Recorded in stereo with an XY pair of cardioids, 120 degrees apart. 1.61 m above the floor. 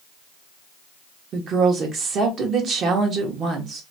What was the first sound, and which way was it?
A woman speaking, 50° right.